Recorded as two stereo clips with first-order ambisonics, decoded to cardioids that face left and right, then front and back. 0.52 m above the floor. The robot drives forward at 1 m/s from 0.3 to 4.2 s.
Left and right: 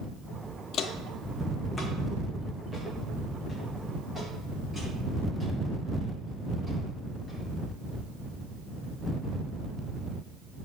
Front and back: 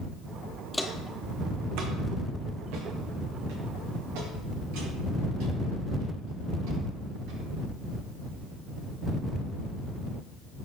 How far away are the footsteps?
About 0.6 m.